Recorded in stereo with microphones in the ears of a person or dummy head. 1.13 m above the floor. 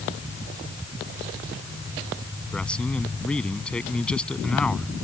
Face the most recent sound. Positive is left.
turn(degrees=10)  # may be behind; listen again after turning